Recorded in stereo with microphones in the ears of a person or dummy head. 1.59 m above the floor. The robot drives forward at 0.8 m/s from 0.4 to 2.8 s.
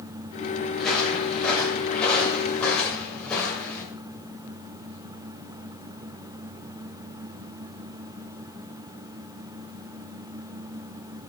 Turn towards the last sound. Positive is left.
turn(degrees=10)  # may be behind; listen again after turning